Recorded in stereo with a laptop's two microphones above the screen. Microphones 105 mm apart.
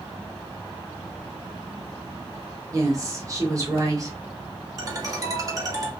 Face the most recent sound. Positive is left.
turn(degrees=-35)  # may be behind; listen again after turning